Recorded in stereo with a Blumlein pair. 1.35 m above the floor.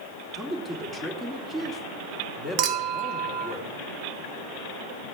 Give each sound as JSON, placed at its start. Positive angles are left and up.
{"t": 0.3, "sound": "a man speaking", "azimuth_deg": -10, "distance_m": 2.5}
{"t": 2.6, "sound": "a clink", "azimuth_deg": -40, "distance_m": 0.9}